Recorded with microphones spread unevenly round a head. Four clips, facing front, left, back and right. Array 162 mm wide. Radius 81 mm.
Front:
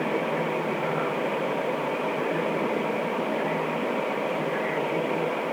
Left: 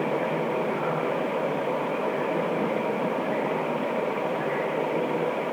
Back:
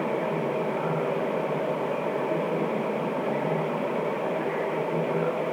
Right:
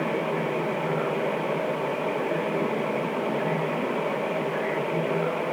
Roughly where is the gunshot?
I don't hear a gunshot.